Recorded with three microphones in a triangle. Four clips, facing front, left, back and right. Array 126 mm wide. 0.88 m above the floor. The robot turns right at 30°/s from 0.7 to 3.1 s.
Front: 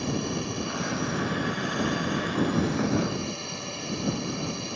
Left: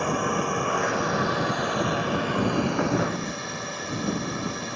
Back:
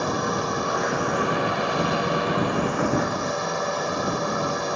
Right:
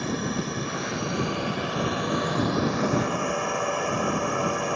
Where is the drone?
145° left; by 4.8 s 145° right.